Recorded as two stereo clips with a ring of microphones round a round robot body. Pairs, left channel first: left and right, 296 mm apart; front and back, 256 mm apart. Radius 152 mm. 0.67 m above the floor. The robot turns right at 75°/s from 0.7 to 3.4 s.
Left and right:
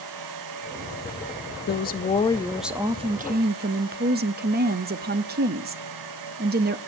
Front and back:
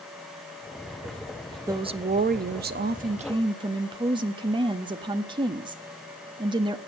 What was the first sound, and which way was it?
A woman speaking, 110° left.